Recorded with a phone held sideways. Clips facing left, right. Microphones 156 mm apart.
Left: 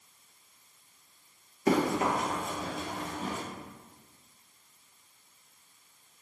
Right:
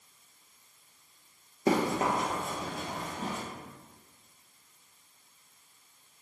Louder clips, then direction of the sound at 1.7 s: Left 1 dB; 25° right (ahead or behind).